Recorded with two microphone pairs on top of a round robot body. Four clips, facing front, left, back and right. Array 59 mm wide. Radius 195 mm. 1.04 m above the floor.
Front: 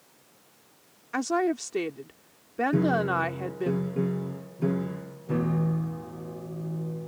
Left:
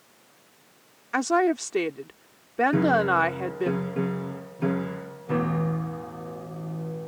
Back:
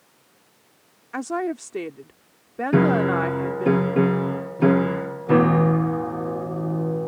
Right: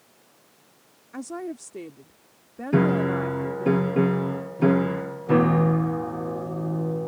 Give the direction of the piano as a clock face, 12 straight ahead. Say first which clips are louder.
Right 2 dB, back 7 dB; 6 o'clock.